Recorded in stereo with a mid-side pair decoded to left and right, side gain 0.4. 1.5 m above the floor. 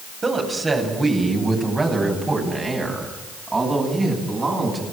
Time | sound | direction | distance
0.2 | a woman speaking | 35° right | 9.5 m